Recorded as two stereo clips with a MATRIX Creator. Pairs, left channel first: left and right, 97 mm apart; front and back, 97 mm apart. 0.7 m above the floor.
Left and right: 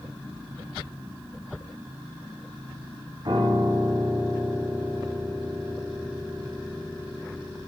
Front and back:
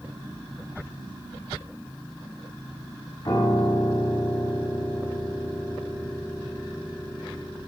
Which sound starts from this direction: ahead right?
A piano, at 3.2 s.